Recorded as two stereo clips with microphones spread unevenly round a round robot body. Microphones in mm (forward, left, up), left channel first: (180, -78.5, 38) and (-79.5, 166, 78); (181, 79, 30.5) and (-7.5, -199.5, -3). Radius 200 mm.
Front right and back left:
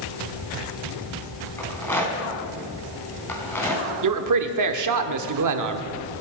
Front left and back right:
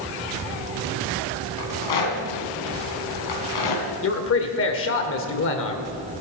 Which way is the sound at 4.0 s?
110° left.